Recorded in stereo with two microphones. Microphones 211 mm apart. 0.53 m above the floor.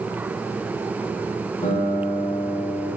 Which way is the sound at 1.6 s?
30° left (ahead or behind).